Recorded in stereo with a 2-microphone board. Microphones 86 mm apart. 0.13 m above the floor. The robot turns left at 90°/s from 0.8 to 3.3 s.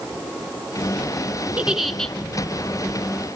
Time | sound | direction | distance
1.6 | a giggle | 150° right | 0.6 m